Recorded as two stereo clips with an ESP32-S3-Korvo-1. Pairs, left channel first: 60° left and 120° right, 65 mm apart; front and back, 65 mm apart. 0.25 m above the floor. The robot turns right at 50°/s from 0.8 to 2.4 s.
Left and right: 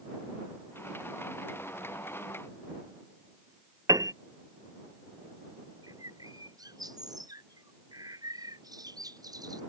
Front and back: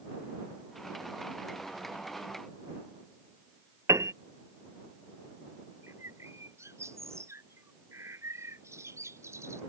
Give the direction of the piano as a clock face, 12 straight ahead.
5 o'clock.